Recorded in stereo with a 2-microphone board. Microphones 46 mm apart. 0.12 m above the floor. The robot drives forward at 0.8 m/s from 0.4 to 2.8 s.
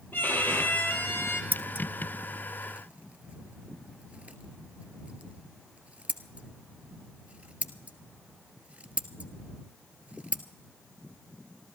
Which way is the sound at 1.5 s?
40° right (ahead or behind).